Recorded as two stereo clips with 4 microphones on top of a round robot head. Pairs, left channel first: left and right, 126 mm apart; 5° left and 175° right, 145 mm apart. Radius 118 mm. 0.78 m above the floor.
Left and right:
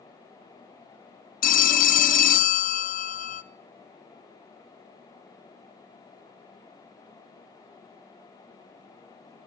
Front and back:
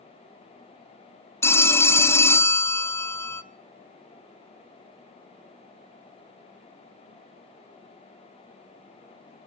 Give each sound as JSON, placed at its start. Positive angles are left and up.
{"t": 1.4, "sound": "a phone ringing", "azimuth_deg": 80, "distance_m": 0.6}